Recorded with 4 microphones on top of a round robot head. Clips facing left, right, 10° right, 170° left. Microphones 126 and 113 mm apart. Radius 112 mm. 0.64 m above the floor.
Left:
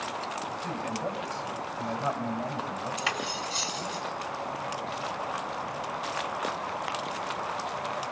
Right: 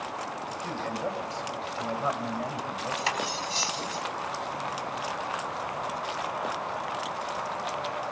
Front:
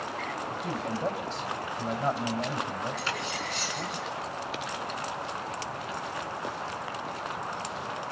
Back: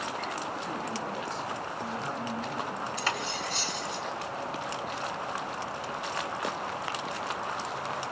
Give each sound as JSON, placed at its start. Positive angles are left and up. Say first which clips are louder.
{"t": 0.5, "sound": "a man speaking", "louder": "even, front 2 dB", "azimuth_deg": -15, "distance_m": 4.0}
{"t": 3.0, "sound": "cutlery clinking", "louder": "right 2 dB, back 1 dB", "azimuth_deg": -145, "distance_m": 3.0}